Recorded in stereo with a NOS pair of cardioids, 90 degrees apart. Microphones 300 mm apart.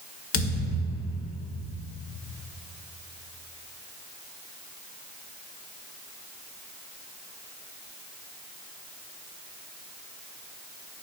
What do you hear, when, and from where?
0.3 s a thud: 45° left, 1.8 m